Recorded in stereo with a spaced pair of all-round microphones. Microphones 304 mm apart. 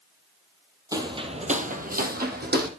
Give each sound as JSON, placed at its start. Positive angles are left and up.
{"t": 0.9, "sound": "footsteps", "side_deg": -10, "distance_m": 2.0}